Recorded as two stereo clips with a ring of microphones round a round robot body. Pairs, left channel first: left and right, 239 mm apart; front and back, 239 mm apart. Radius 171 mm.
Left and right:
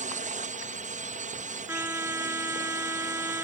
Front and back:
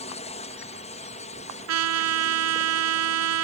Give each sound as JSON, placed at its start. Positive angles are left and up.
{"t": 0.0, "sound": "a drone", "azimuth_deg": -55}
{"t": 1.7, "sound": "a trumpet", "azimuth_deg": -170}